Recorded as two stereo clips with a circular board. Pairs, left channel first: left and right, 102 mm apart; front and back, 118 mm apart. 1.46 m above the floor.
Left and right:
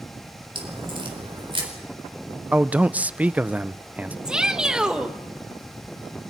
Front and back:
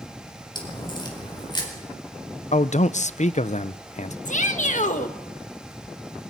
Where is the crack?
50° right, 4.5 m.